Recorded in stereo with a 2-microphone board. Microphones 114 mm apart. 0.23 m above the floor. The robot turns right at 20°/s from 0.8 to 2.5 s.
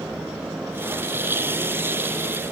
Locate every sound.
Only background noise.